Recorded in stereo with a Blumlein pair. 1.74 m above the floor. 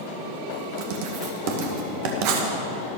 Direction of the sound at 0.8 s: 45° right.